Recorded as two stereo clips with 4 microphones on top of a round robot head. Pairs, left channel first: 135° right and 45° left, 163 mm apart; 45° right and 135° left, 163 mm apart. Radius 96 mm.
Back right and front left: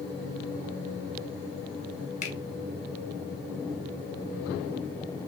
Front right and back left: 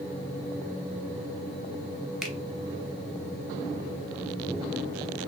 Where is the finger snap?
130° right, 1.1 m.